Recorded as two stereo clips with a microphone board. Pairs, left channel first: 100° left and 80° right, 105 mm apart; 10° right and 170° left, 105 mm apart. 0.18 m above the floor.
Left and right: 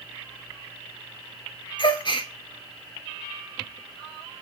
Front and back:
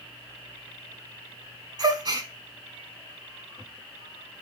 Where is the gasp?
125° left, 0.5 m.